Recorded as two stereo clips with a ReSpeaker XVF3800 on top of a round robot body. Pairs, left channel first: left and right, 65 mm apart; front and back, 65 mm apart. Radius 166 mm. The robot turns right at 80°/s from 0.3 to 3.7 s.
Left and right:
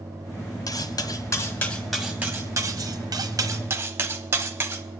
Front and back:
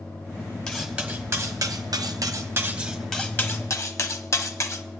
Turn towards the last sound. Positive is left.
turn(degrees=-35)